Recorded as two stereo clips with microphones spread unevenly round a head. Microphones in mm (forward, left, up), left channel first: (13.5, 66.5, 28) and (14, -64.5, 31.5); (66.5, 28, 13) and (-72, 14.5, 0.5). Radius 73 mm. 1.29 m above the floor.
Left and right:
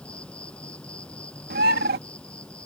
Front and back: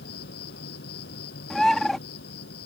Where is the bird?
80° right.